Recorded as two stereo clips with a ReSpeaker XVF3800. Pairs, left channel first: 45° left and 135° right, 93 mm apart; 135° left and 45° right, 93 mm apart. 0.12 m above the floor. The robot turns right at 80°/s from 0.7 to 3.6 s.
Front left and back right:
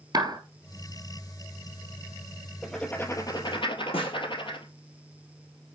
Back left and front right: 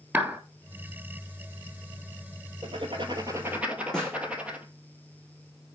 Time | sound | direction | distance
0.1 | a clap | 115° right | 1.6 m
2.6 | writing | 50° right | 1.9 m
3.9 | a snare drum | 55° left | 4 m